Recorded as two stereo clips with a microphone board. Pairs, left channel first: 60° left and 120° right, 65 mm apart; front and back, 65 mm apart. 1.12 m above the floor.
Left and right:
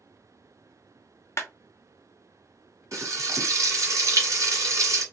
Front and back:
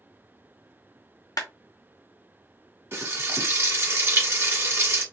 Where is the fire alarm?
I don't hear a fire alarm.